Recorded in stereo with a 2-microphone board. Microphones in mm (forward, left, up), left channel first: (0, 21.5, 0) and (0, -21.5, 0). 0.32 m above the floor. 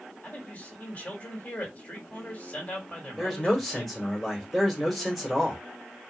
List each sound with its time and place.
0.2 s a man speaking: 35° left (ahead or behind), 2 m
3.2 s a man speaking: centre (ahead or behind), 1.7 m